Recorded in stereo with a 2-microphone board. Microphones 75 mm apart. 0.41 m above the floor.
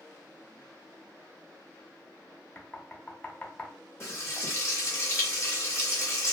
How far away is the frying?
About 1.1 m.